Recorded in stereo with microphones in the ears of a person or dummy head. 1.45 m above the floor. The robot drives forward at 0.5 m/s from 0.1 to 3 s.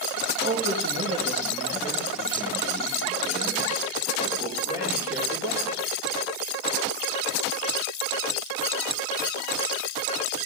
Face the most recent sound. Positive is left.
turn(degrees=-15)  # may be behind; listen again after turning